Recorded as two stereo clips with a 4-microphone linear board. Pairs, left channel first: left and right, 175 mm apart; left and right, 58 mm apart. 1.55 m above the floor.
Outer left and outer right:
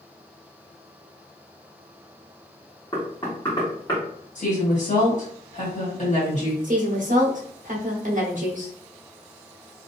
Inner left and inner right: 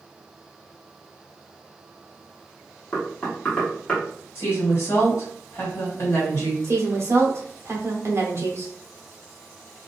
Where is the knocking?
20° left (ahead or behind), 1.2 m.